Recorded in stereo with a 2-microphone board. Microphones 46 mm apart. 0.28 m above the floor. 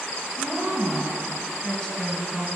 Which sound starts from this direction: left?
A woman speaking, at 0.4 s.